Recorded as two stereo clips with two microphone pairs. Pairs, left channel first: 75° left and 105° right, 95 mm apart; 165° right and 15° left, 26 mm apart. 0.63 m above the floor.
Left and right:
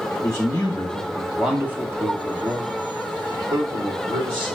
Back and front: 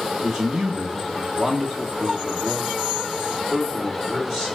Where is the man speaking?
65° left, 0.9 m; by 4.6 s 90° right, 2 m.